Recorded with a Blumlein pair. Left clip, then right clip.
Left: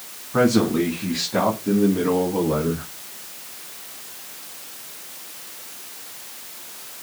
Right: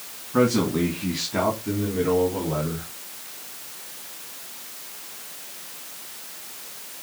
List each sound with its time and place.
0.3 s a man speaking: 10° left, 2.5 m; by 2.9 s 20° left, 5 m